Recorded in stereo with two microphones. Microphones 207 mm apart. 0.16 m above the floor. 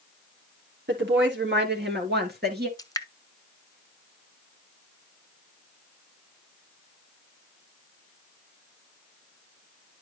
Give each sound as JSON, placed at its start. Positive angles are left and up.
{"t": 0.9, "sound": "a woman speaking", "side_deg": -65, "distance_m": 3.0}
{"t": 2.8, "sound": "dripping", "side_deg": 15, "distance_m": 0.7}